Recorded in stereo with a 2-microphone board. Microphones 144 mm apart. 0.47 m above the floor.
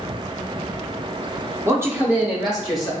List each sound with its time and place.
1.6 s a man speaking: 20° right (ahead or behind), 0.8 m; by 2.9 s centre (ahead or behind), 1.5 m